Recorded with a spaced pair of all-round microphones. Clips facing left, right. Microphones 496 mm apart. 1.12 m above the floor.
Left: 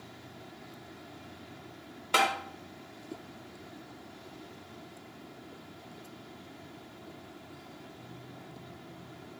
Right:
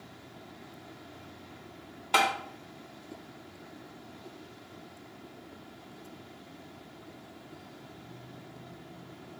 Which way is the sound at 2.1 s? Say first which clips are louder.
Even; 10° right (ahead or behind).